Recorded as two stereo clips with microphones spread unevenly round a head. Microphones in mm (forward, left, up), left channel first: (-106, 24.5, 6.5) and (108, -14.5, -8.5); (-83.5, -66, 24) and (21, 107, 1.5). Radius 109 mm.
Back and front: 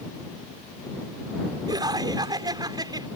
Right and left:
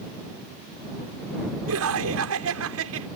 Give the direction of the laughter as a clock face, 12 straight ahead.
10 o'clock.